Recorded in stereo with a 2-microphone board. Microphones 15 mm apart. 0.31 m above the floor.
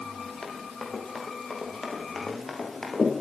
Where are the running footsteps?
15° left (ahead or behind), 9 m; by 3.1 s 25° left (ahead or behind), 10 m.